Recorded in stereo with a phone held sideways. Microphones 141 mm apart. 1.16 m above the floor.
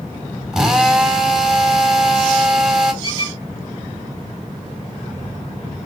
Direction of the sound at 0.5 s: 5° right (ahead or behind).